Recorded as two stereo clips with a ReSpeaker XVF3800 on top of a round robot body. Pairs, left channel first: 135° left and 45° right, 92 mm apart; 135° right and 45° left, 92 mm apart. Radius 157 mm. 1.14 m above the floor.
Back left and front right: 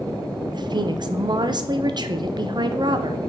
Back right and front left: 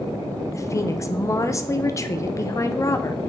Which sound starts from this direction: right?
A woman speaking, at 0.5 s.